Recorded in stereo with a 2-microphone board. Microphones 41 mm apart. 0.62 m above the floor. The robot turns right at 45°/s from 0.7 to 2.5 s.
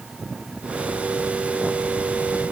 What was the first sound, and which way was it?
Only background noise.